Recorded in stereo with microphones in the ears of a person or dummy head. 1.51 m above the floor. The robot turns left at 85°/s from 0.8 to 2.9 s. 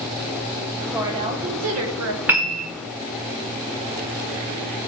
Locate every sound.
0.9 s a woman speaking: 5° right, 1.2 m; by 2.2 s 110° right, 1.2 m
2.3 s a piano: 10° right, 1.0 m; by 2.7 s 45° right, 1.0 m